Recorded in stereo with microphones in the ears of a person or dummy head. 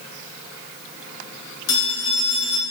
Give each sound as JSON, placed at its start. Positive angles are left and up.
{"t": 1.7, "sound": "a phone ringing", "side_deg": 55, "distance_m": 2.0}